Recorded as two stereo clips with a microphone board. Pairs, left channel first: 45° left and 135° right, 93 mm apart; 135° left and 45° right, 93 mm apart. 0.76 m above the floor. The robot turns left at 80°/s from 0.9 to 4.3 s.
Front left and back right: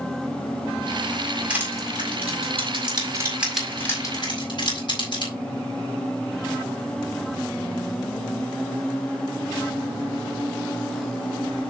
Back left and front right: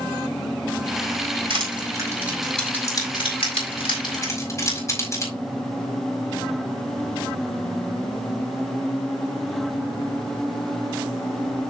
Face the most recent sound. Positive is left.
turn(degrees=80)